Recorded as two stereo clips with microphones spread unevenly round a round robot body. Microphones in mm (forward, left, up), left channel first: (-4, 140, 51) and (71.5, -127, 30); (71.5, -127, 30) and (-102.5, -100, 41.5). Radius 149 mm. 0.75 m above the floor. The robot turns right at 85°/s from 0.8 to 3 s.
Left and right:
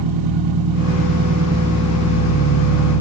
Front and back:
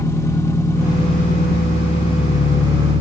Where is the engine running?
85° right, 1.9 m; by 3.0 s 100° left, 1.9 m.